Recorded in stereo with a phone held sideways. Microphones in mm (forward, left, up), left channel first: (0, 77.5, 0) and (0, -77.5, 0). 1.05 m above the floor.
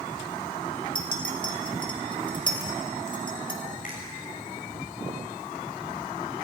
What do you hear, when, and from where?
0.9 s a clink: 35° left (ahead or behind), 2.5 m
3.8 s a finger snap: 65° left (ahead or behind), 6 m